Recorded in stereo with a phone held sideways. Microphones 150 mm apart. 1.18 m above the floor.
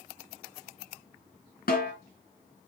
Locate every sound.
1.7 s a snare drum: 70° left (ahead or behind), 3.5 m